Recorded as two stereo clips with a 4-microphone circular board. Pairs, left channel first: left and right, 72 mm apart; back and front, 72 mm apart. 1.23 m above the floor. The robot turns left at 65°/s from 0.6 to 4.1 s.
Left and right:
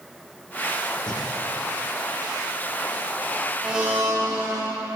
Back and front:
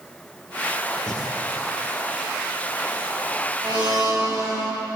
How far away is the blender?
About 5 m.